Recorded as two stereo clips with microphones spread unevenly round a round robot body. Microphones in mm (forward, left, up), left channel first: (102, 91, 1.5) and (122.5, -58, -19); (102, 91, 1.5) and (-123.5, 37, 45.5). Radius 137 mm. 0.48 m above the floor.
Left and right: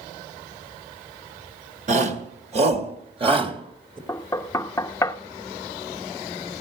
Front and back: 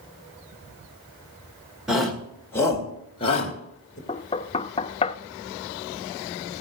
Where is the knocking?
30° left, 0.6 m.